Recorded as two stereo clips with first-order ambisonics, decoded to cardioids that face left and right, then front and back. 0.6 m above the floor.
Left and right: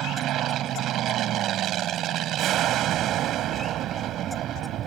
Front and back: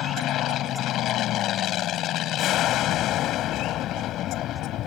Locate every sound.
0.0 s an aircraft: 45° right